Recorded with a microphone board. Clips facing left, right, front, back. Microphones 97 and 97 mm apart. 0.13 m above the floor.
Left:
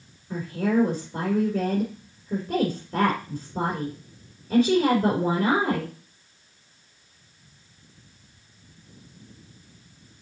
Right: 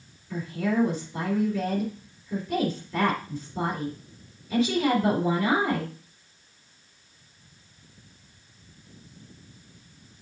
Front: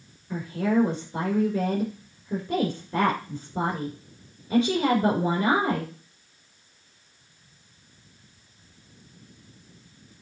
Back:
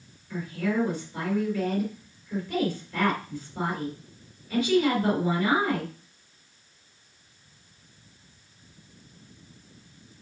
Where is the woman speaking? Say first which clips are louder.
Left 3 dB, front 4 dB; 45° left, 3 m.